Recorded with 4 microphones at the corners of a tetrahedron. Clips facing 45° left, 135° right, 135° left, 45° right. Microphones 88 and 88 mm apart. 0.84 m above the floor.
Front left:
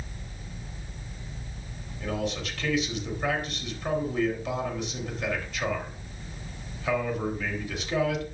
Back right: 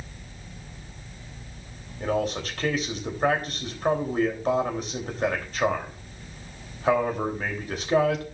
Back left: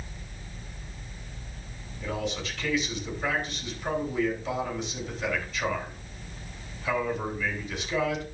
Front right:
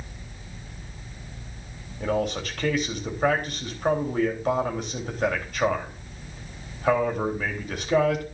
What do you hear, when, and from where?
2.0 s a man speaking: 85° right, 3 m